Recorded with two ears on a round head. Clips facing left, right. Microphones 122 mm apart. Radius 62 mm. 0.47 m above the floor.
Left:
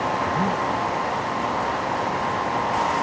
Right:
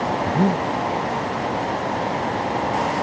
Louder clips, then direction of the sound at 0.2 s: Right 3 dB; 40° right (ahead or behind).